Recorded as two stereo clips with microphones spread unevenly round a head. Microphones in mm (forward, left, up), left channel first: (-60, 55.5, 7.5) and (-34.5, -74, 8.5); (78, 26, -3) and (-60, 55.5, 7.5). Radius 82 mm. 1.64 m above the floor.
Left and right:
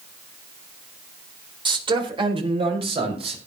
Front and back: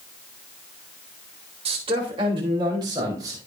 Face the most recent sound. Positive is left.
turn(degrees=-120)